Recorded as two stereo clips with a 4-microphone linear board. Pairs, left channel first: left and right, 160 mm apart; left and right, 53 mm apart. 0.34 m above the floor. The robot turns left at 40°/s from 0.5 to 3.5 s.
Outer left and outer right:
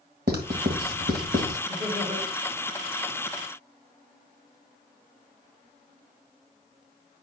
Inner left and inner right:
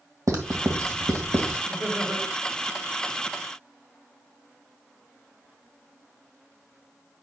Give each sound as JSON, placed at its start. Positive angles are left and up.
{"t": 0.3, "sound": "writing", "side_deg": -65, "distance_m": 1.8}
{"t": 1.7, "sound": "laughter", "side_deg": -30, "distance_m": 4.5}